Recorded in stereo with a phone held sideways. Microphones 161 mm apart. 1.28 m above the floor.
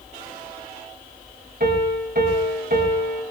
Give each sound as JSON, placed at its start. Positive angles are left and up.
{"t": 1.6, "sound": "a piano", "side_deg": -75, "distance_m": 5.5}